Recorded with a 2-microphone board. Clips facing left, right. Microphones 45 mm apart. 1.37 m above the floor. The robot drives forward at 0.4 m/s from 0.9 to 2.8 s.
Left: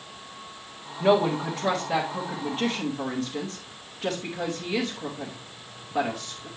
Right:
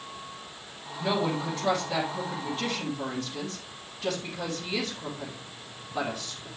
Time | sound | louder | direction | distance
1.0 | a woman speaking | left 6 dB | 55° left (ahead or behind) | 1.7 m